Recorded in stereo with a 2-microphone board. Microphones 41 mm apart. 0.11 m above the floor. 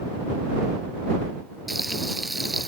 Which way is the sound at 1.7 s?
5° right (ahead or behind).